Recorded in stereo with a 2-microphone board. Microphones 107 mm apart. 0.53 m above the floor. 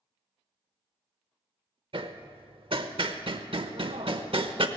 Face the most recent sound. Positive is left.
turn(degrees=-55)  # may be behind; listen again after turning